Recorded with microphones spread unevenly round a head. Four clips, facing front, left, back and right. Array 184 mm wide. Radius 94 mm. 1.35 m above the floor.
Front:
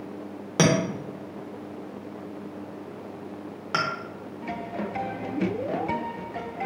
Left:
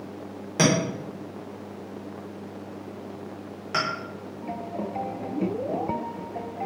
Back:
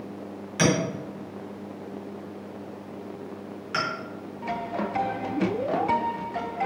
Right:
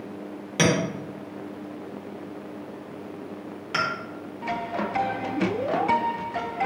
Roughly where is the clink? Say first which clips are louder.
Even, front 2 dB; ahead.